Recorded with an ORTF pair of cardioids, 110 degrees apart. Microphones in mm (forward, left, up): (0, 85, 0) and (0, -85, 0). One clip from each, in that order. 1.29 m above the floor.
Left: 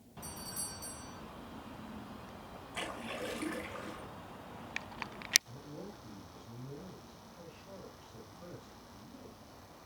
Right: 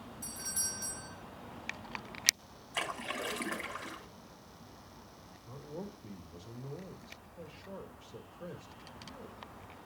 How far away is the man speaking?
About 2 m.